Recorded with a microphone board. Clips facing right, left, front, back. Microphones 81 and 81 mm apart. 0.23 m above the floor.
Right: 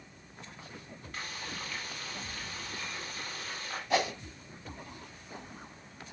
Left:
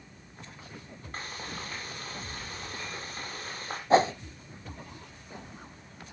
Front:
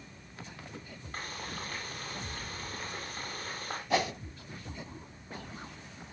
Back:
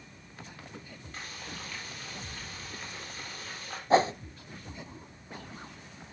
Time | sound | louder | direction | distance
1.1 | frying | left 2 dB, front 3 dB | 40° left | 7 m
3.9 | a whoosh | left 8 dB, back 7 dB | 135° left | 0.9 m